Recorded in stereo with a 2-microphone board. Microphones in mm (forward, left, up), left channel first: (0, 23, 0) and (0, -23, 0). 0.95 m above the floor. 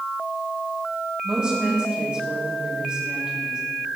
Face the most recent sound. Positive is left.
turn(degrees=-20)  # may be behind; listen again after turning